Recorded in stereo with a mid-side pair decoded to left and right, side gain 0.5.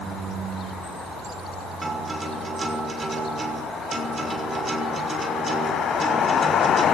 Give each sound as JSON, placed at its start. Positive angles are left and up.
{"t": 1.8, "sound": "a guitar", "azimuth_deg": -25, "distance_m": 6.0}